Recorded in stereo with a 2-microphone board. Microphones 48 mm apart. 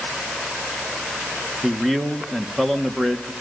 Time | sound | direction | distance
1.6 | a man speaking | 5° left (ahead or behind) | 1.7 m